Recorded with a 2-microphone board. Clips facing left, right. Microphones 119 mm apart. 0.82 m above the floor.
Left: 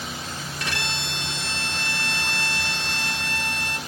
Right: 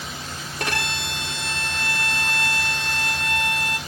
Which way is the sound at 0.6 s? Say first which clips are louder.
Right 5 dB; 55° right (ahead or behind).